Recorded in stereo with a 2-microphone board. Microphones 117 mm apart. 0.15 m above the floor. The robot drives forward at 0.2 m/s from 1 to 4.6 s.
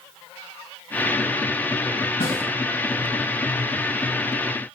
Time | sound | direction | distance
2.2 | a snare drum | 35° left (ahead or behind) | 2.5 m